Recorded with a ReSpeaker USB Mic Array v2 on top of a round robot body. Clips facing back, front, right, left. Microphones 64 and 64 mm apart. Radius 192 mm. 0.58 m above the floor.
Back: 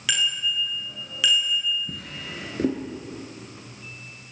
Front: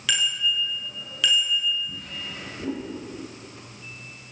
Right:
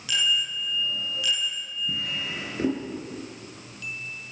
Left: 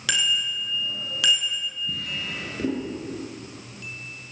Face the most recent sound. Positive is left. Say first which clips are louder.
# back 1 dB, right 1 dB
turn(degrees=-160)